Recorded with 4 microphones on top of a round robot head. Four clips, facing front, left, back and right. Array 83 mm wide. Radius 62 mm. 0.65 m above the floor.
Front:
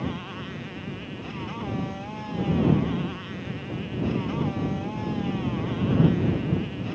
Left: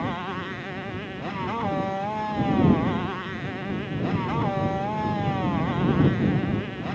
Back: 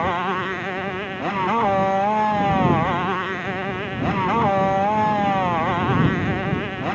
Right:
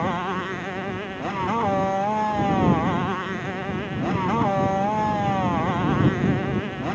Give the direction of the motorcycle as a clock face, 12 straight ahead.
5 o'clock.